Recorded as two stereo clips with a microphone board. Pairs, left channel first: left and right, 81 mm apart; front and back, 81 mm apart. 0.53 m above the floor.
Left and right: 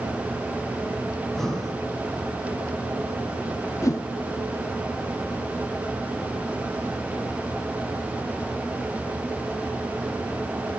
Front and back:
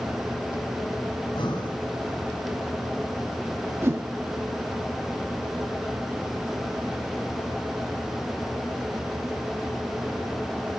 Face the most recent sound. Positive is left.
turn(degrees=130)